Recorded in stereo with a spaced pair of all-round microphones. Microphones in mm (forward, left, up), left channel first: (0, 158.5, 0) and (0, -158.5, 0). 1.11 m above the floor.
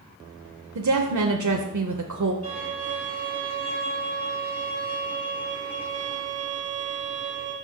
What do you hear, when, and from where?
0.8 s a woman speaking: 65° right (ahead or behind), 0.5 m
2.4 s a violin: 55° left (ahead or behind), 3.5 m